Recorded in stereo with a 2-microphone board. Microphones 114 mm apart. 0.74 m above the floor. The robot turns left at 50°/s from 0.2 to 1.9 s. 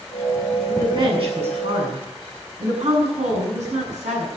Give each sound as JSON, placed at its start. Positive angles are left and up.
{"t": 0.7, "sound": "a woman speaking", "azimuth_deg": -30, "distance_m": 8.0}